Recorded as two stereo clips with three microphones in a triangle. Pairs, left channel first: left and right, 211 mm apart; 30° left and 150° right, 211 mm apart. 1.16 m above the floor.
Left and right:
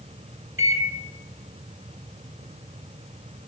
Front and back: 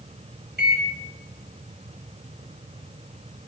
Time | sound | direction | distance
0.6 | a microwave | 110° right | 1.4 m